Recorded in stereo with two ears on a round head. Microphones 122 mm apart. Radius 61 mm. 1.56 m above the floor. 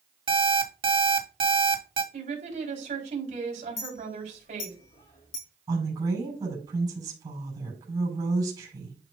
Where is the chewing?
No chewing in this recording.